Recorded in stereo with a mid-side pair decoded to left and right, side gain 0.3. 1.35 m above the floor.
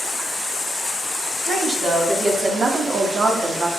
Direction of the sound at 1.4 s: 60° right.